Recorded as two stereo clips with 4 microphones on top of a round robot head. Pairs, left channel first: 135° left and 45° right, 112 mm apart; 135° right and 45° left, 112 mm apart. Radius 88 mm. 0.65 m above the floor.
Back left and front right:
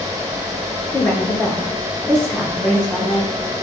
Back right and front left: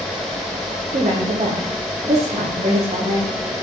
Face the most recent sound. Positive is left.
turn(degrees=50)